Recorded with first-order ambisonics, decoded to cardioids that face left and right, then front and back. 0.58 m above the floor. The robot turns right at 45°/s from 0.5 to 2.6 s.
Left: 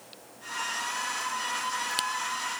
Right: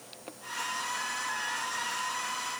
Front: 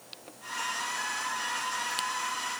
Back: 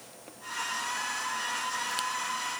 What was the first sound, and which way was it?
Only background noise.